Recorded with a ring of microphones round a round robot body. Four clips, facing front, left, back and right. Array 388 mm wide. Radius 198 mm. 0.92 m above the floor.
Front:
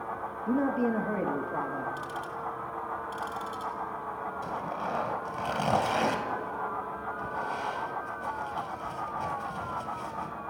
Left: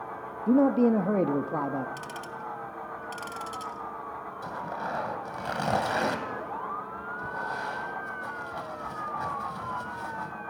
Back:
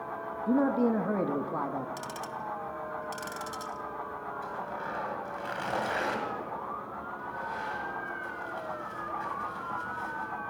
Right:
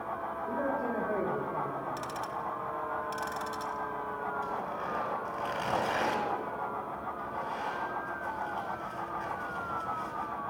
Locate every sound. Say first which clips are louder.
0.5 s a man speaking: left 12 dB, back 2 dB; 100° left, 1.3 m
2.0 s ticking: right 2 dB, front 1 dB; 165° left, 1.5 m
4.4 s tearing paper: left 1 dB, front 4 dB; 40° left, 2.5 m